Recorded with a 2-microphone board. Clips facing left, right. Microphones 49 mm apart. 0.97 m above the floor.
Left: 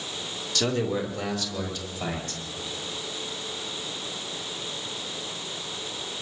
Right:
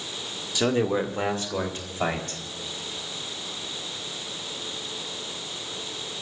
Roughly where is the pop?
I don't hear a pop.